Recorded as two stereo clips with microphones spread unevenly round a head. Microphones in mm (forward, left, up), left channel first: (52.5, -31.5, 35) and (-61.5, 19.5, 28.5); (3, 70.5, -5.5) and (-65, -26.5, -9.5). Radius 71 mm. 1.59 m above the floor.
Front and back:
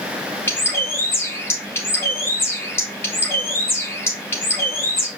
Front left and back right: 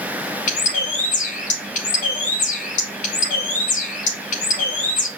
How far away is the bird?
About 1.9 m.